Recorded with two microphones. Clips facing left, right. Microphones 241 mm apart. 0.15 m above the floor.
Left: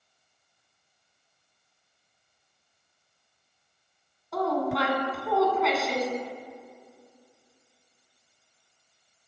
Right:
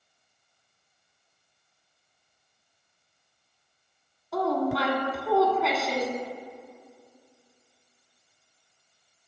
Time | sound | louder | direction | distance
4.3 | a woman speaking | right 1 dB | centre (ahead or behind) | 1.3 m